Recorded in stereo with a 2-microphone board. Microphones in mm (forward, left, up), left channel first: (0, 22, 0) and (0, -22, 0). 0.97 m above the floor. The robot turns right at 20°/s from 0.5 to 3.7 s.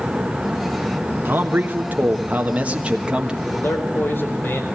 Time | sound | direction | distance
1.2 | a man speaking | 60° right | 1.3 m
3.5 | a man speaking | 55° left (ahead or behind) | 4 m